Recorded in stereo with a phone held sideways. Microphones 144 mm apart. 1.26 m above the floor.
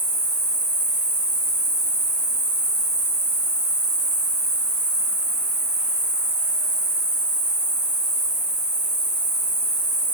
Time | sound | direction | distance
0.0 | an insect | 75° right (ahead or behind) | 1.3 m